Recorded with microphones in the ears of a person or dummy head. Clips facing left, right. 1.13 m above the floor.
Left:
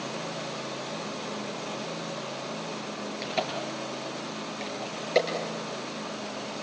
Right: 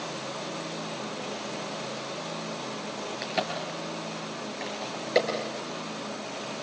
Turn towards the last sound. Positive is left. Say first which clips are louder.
# even
turn(degrees=0)  # may be behind; listen again after turning